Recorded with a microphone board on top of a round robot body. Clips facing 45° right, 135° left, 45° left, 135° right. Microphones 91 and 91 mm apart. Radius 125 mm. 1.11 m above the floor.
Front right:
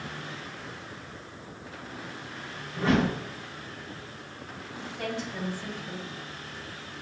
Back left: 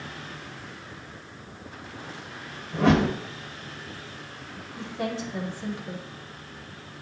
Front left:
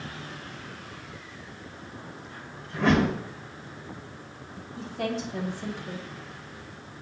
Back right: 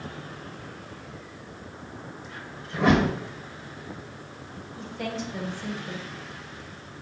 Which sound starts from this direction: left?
A woman speaking, at 4.8 s.